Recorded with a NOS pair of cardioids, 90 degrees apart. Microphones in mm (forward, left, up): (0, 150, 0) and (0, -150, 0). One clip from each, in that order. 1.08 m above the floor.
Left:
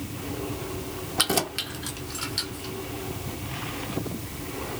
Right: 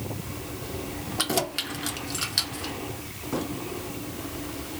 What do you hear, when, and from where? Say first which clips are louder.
1.2 s keys jangling: left 2 dB; 20° left, 0.6 m; by 2.7 s 45° right, 1.3 m